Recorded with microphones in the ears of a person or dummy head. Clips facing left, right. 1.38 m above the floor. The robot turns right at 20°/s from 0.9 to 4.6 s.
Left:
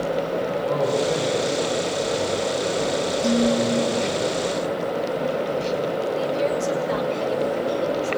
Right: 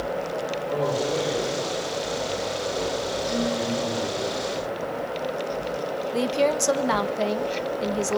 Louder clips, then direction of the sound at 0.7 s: Left 3 dB; 80° left.